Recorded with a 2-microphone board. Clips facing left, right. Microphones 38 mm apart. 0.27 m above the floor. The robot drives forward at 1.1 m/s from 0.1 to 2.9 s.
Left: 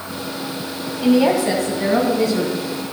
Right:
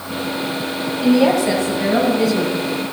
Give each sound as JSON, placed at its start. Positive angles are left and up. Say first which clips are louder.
{"t": 1.0, "sound": "a woman speaking", "louder": "right 1 dB", "side_deg": 5, "distance_m": 1.7}